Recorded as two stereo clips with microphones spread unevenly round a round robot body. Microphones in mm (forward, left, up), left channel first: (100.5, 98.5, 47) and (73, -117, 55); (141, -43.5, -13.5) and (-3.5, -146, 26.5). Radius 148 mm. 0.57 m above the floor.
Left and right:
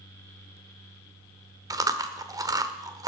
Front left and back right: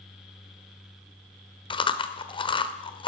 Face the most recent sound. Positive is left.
turn(degrees=-25)